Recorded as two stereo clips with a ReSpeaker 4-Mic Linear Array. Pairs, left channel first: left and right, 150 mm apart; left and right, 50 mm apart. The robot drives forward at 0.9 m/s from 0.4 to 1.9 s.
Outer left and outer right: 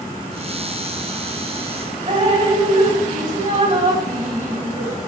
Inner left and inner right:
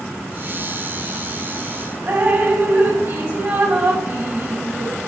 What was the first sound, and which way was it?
Dripping, 45° right (ahead or behind).